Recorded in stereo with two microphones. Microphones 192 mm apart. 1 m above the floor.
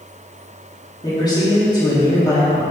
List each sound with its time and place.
1.0 s a man speaking: 25° left (ahead or behind), 2.5 m